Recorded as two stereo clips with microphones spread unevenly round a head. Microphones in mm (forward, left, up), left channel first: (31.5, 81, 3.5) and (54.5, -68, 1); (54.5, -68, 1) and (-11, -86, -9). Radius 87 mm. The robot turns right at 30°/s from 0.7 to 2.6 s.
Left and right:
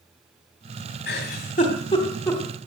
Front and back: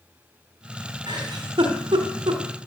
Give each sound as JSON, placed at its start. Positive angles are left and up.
{"t": 1.1, "sound": "a giggle", "azimuth_deg": 135, "distance_m": 2.5}